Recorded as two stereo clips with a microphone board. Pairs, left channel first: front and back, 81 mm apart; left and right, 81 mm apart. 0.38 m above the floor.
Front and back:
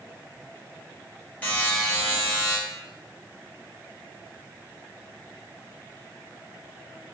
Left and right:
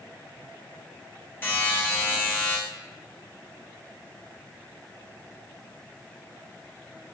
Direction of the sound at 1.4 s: 55° left.